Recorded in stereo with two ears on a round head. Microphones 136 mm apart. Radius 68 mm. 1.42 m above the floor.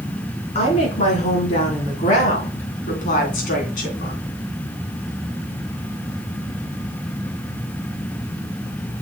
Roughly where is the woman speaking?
Left.